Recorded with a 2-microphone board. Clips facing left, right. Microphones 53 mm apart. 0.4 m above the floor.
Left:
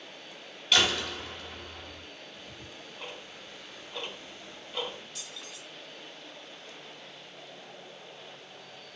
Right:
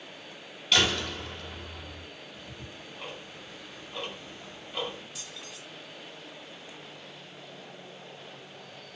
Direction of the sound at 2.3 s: 5° right (ahead or behind).